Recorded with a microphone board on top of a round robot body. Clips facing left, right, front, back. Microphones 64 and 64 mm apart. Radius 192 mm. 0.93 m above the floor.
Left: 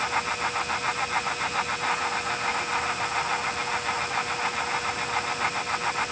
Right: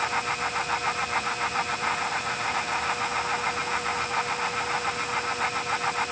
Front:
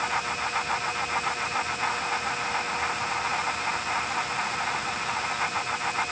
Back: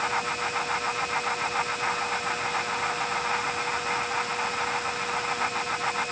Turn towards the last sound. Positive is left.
No sound to turn to.